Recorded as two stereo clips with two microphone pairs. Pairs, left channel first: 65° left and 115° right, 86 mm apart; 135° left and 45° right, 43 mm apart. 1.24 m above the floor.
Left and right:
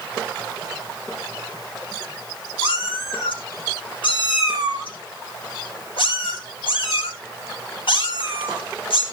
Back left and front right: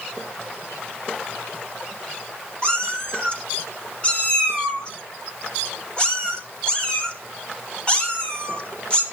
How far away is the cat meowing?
About 4 m.